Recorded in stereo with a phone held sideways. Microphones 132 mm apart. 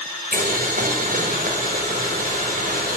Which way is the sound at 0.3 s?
85° right.